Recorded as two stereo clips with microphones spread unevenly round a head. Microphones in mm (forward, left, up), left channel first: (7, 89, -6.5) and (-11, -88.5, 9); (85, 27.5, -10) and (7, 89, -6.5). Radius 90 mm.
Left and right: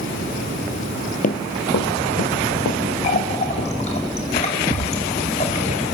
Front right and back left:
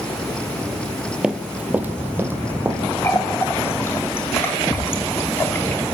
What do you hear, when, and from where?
1.2 s running footsteps: 70° left, 1.5 m; by 4.0 s 80° left, 4.5 m
3.0 s a running tap: 30° left, 2.5 m